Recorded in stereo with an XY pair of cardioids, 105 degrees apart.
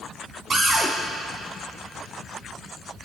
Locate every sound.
0.5 s a cupboard door: 45° right, 4 m